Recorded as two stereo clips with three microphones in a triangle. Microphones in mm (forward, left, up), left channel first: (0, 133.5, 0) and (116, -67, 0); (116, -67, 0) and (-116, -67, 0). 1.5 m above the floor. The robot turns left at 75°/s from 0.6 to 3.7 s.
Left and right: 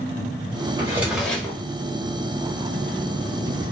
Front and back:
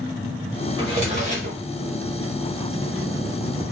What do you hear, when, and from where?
0.8 s a drawer: 120° right, 1.1 m; by 1.6 s straight behind, 1.1 m